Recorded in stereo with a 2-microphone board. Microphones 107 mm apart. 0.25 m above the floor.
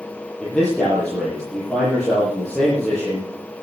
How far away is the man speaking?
About 7.5 m.